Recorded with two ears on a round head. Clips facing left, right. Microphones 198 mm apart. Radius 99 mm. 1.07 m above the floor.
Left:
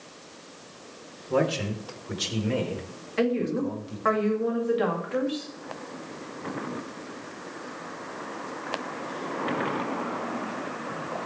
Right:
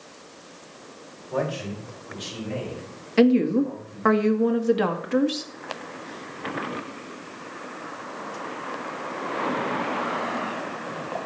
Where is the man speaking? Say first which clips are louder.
Left 3 dB; 55° left (ahead or behind), 3.5 m; by 4.2 s 70° left (ahead or behind), 4.5 m.